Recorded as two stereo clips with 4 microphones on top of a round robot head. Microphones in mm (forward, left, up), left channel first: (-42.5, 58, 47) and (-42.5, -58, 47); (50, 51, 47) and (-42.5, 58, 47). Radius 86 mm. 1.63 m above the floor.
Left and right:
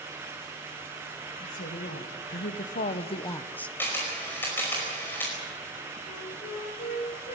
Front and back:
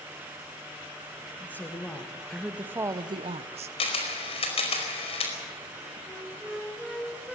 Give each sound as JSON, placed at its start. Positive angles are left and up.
{"t": 1.4, "sound": "a woman speaking", "azimuth_deg": 65, "distance_m": 3.0}
{"t": 3.8, "sound": "a camera shutter", "azimuth_deg": 10, "distance_m": 5.0}
{"t": 6.1, "sound": "a flute", "azimuth_deg": 80, "distance_m": 6.0}